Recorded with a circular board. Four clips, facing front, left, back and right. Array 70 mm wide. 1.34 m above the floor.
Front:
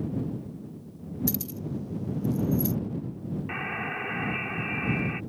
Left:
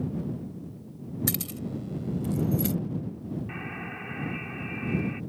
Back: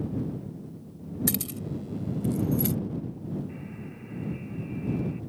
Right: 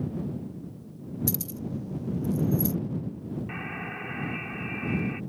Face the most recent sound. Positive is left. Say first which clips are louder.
# right 1 dB, front 8 dB
turn(degrees=-5)